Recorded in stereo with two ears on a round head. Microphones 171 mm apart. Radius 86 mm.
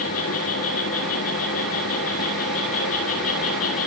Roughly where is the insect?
Left.